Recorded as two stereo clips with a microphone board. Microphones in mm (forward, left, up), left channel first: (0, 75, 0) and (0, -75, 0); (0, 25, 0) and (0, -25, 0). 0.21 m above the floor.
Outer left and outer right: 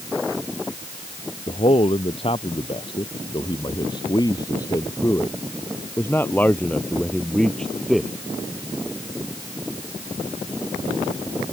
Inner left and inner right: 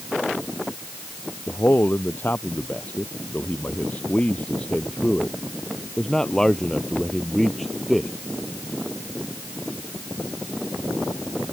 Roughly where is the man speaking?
Left.